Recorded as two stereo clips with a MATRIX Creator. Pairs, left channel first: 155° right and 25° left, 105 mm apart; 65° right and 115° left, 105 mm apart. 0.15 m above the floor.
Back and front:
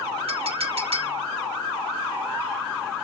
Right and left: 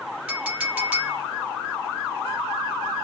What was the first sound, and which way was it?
A clink, 35° left.